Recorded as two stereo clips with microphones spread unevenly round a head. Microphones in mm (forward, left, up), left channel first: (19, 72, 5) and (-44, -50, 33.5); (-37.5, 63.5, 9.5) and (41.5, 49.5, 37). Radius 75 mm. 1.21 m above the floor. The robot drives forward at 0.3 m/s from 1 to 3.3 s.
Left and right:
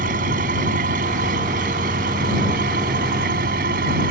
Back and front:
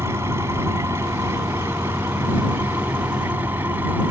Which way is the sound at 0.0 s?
80° right.